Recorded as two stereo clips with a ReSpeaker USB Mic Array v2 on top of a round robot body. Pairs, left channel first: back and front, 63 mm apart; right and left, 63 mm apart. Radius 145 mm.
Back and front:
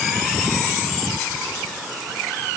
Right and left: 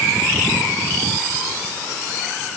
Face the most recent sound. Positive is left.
No sound to turn to.